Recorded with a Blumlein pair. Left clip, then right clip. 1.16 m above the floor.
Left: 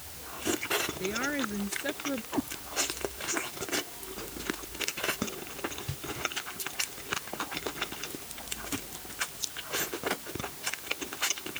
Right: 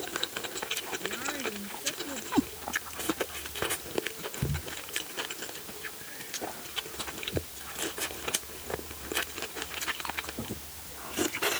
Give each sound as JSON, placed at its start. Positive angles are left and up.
{"t": 1.0, "sound": "a woman speaking", "azimuth_deg": 65}
{"t": 2.3, "sound": "a cat meowing", "azimuth_deg": -15}